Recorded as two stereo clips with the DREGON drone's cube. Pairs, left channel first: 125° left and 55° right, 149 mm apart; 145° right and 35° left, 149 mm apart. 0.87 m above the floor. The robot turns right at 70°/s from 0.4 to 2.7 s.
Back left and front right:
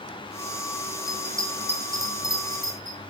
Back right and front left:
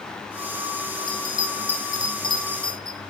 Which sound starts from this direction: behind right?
A bell, at 1.1 s.